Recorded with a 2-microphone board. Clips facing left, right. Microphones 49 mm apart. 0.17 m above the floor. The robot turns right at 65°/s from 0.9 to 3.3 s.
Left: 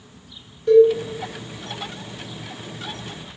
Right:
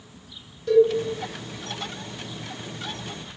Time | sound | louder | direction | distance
0.7 | a cowbell | left 5 dB | 20° left (ahead or behind) | 1.6 m